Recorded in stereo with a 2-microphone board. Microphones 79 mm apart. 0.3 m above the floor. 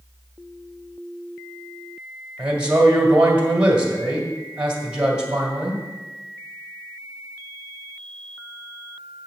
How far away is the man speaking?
About 1.9 m.